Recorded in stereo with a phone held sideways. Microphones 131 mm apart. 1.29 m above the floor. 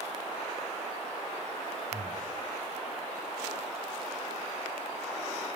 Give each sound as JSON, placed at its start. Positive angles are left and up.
{"t": 1.9, "sound": "breathing", "side_deg": -65, "distance_m": 6.5}